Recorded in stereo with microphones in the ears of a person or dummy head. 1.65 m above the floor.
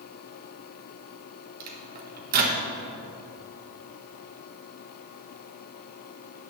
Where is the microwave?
45° right (ahead or behind), 1.0 m.